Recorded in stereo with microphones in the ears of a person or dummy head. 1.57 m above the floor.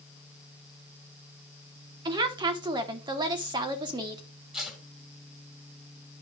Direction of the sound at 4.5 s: 5° right (ahead or behind).